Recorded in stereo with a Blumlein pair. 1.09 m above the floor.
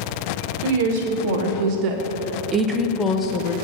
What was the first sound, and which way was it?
A woman speaking, 50° right.